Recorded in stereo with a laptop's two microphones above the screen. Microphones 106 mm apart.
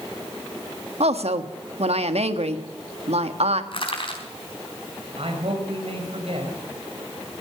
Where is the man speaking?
65° right (ahead or behind), 4.5 m.